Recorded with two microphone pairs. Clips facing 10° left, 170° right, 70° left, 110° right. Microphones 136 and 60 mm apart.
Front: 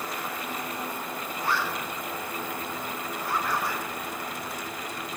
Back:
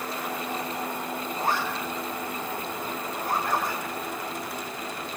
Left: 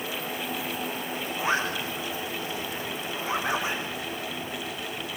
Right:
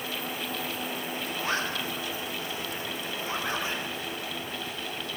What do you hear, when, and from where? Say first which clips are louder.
1.4 s a zipper: back 1 dB, left 4 dB; 145° left, 6.5 m